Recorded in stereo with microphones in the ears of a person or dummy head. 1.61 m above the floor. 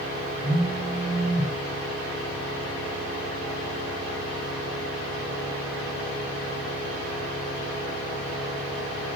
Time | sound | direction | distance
0.4 | a phone buzzing | 70° right (ahead or behind) | 2 m